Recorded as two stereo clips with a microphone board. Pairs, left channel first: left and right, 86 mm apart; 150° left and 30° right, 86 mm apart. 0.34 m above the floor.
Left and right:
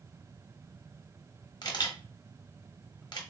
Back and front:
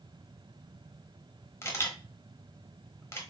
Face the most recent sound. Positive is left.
turn(degrees=105)